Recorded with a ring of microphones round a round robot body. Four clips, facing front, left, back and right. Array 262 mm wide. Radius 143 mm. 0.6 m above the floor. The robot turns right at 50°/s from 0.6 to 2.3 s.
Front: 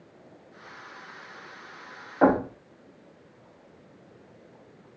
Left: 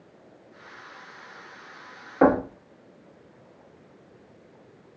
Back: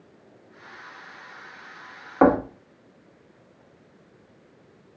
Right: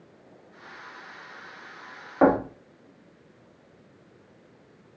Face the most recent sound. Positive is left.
turn(degrees=-170)